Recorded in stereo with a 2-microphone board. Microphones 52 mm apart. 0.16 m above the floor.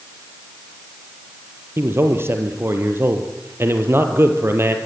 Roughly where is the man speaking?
Right.